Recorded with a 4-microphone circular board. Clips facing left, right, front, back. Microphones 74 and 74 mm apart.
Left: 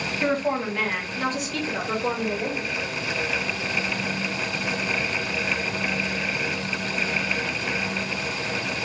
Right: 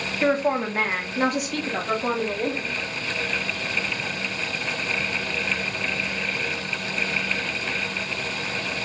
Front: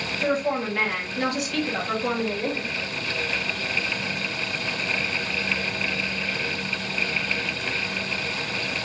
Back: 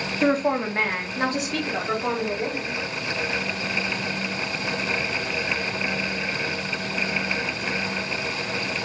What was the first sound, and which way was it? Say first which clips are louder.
A woman speaking: right 3 dB, back 3 dB; 160° right.